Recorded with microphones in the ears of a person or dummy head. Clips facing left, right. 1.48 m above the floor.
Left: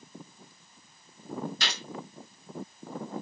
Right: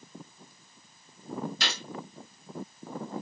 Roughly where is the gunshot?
Right.